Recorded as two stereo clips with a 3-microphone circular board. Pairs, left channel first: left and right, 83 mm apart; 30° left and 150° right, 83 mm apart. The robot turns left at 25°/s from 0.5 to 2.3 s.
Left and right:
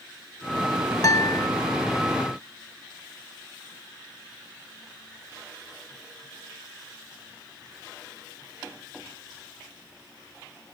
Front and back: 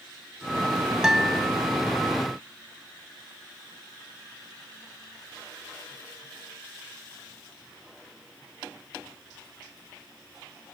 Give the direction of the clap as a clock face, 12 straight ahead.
I don't hear a clap.